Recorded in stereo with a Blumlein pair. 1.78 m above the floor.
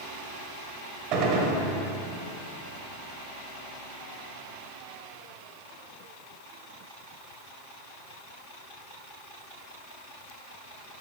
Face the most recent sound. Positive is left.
turn(degrees=-35)